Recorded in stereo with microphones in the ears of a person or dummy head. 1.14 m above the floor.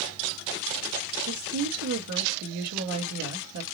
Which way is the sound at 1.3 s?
85° right.